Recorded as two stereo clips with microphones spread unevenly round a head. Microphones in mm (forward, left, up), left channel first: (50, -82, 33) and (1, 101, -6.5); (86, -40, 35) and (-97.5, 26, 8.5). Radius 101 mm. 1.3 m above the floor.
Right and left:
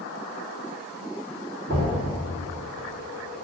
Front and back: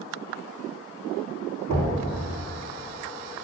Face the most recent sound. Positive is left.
turn(degrees=135)